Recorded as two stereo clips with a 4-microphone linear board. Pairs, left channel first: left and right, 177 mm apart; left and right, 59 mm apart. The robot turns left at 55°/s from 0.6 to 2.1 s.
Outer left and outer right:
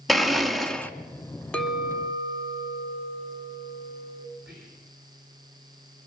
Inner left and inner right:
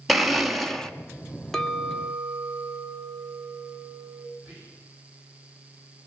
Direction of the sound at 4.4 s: 10° right (ahead or behind).